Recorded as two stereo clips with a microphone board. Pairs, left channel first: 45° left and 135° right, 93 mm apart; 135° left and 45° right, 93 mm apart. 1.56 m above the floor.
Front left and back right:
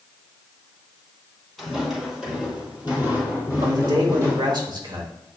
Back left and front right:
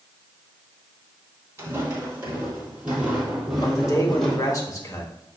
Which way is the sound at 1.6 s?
45° right.